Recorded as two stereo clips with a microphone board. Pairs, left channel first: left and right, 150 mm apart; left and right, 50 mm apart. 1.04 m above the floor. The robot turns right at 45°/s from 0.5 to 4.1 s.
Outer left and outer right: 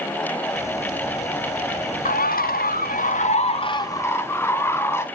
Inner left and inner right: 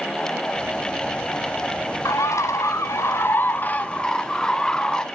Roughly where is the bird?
Left.